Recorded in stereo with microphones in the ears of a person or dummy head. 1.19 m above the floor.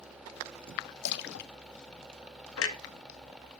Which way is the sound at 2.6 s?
80° left.